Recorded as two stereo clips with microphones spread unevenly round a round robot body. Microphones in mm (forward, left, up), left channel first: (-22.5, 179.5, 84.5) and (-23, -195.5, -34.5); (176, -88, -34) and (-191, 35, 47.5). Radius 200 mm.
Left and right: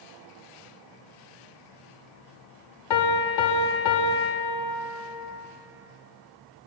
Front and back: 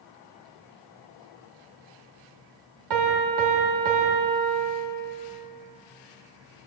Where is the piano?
115° left, 0.7 m.